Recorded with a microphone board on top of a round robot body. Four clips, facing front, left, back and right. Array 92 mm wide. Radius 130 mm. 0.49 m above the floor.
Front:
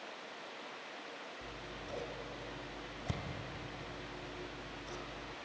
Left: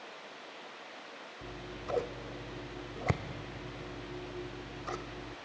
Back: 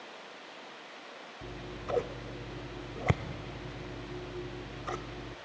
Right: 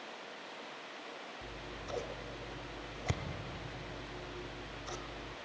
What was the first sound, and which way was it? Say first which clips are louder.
Scissors: left 3 dB, back 6 dB; 145° left.